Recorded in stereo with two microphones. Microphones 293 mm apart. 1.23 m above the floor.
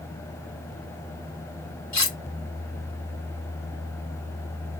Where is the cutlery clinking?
65° left (ahead or behind), 1.1 m.